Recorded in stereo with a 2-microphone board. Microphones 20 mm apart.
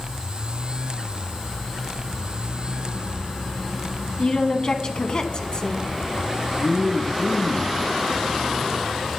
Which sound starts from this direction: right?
A man speaking, at 6.6 s.